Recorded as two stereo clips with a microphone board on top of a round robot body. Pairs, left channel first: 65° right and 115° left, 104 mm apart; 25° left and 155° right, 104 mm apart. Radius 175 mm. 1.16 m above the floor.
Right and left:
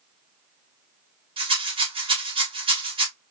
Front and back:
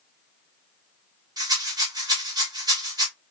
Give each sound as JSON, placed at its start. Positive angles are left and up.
{"t": 1.4, "sound": "a rattle", "azimuth_deg": 150, "distance_m": 2.0}